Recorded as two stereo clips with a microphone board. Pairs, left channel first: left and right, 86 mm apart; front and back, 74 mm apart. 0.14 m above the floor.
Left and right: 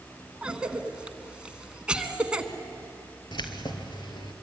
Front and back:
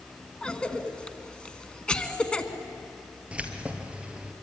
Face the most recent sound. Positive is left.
turn(degrees=105)